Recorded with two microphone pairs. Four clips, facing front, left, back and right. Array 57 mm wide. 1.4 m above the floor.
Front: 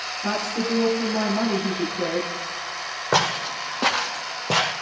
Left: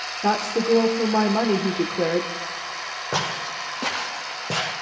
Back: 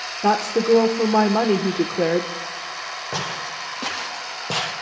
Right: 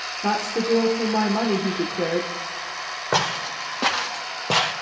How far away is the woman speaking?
About 1.1 m.